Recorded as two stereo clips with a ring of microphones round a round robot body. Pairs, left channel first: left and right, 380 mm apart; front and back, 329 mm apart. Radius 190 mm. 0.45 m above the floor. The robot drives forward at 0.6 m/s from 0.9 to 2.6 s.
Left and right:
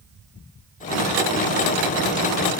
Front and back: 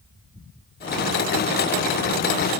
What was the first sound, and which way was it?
Only background noise.